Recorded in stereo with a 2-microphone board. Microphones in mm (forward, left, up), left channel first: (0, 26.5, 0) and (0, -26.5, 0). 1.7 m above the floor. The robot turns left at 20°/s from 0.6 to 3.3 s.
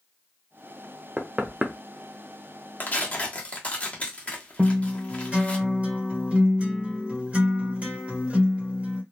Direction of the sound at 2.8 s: 40° left (ahead or behind).